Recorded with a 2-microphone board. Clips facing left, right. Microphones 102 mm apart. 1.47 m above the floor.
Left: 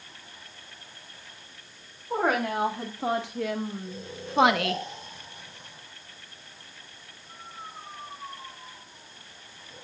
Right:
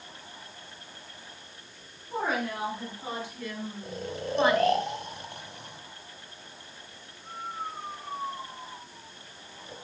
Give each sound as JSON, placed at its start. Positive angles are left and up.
{"t": 2.1, "sound": "a woman speaking", "side_deg": 80, "distance_m": 4.0}
{"t": 3.8, "sound": "snoring", "side_deg": -70, "distance_m": 4.0}